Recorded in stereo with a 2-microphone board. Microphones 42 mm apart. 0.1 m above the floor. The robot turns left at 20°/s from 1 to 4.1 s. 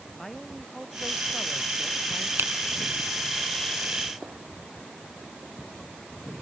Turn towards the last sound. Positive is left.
turn(degrees=-25)  # may be behind; listen again after turning